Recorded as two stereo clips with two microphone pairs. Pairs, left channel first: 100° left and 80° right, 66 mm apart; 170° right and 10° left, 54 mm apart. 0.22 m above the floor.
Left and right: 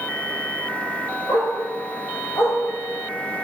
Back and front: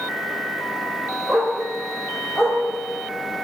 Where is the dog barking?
105° left, 3 m; by 2.6 s 125° left, 3.5 m.